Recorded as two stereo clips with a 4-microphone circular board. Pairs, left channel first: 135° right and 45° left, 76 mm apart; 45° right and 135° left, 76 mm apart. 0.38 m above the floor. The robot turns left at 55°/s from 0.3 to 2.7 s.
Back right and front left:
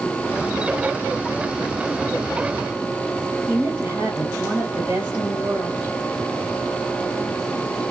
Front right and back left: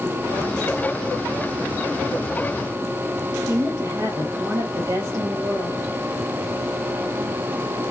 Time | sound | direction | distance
3.5 | a woman speaking | 100° left | 2 m